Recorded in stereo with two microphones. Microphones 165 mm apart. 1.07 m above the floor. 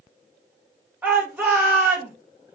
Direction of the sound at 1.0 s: 10° right (ahead or behind).